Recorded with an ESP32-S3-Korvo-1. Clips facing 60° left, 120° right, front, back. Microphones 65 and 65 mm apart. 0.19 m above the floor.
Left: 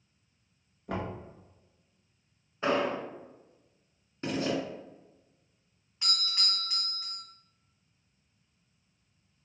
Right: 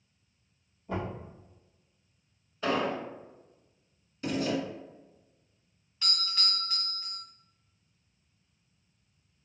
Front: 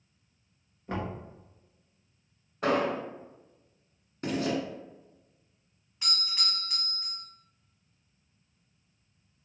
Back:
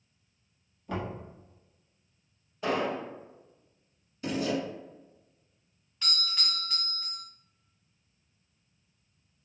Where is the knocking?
55° left, 1.5 m.